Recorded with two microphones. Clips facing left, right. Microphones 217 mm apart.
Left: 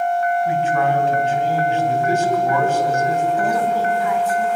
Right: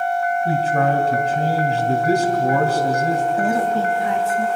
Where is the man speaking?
35° right (ahead or behind), 3 m.